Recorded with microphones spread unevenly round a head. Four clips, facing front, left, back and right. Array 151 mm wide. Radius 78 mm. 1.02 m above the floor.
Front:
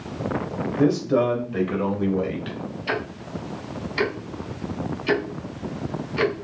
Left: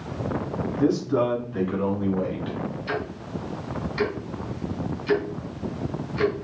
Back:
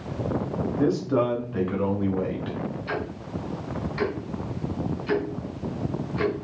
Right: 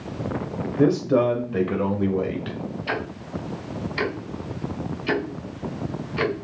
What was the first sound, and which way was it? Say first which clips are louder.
A man speaking: right 3 dB, front 3 dB; 80° right.